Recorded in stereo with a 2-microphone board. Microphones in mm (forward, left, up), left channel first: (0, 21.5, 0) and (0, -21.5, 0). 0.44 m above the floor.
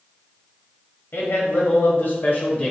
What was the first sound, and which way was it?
A man speaking, 65° left (ahead or behind).